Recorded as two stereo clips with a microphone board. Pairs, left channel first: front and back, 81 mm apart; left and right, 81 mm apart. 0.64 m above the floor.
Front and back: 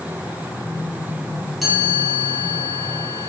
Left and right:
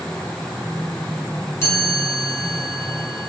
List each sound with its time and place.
1.6 s a chime: 90° left, 1.1 m